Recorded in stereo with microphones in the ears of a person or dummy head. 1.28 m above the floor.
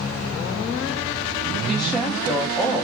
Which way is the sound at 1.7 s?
Centre (ahead or behind).